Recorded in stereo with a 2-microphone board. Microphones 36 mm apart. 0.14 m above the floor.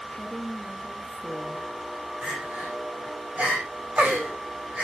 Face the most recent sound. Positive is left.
turn(degrees=-35)  # may be behind; listen again after turning